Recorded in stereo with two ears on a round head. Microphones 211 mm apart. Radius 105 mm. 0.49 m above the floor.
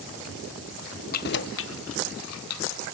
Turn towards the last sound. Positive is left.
turn(degrees=75)  # may be behind; listen again after turning